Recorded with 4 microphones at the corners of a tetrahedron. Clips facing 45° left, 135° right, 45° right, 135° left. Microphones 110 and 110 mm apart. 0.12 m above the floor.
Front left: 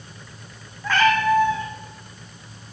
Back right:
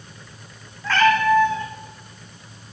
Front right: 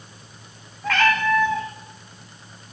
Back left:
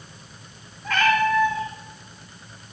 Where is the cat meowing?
30° right, 4.5 m.